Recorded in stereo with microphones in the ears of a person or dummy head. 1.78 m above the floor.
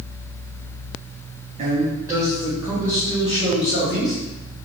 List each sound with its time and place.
1.6 s a man speaking: 45° right (ahead or behind), 0.8 m; by 4.2 s 35° left (ahead or behind), 1.8 m